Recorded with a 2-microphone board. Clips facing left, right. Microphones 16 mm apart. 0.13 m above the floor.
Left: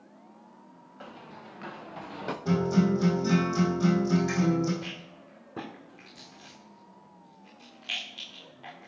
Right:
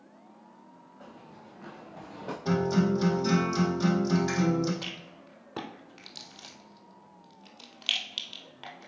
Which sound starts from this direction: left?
Running footsteps, at 1.0 s.